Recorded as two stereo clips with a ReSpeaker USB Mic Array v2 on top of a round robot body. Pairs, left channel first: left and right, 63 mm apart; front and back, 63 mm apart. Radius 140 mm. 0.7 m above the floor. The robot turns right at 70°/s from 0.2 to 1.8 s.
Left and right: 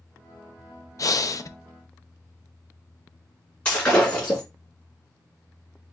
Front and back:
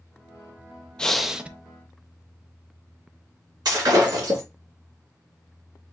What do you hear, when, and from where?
1.0 s breathing: 75° left, 0.5 m; by 1.5 s 110° left, 0.5 m
3.6 s breaking glass: 160° left, 3 m